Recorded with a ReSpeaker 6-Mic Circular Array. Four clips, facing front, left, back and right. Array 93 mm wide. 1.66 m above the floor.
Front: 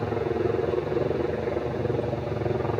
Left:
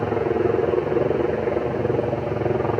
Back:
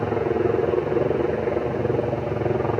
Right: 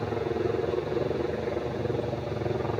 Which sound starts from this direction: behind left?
A helicopter, at 0.0 s.